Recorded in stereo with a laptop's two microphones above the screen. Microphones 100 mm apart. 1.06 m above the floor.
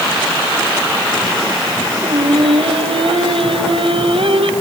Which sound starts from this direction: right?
Singing, at 2.0 s.